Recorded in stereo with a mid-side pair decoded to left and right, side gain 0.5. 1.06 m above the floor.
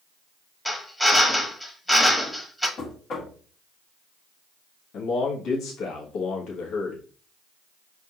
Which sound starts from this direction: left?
A man speaking, at 4.9 s.